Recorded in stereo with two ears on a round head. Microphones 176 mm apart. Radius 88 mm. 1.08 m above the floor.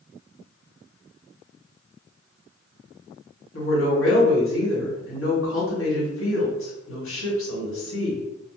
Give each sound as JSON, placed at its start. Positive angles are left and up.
{"t": 3.5, "sound": "a woman speaking", "side_deg": 70, "distance_m": 1.8}